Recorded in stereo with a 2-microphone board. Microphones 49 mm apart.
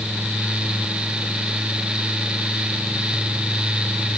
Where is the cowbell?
No cowbell in this recording.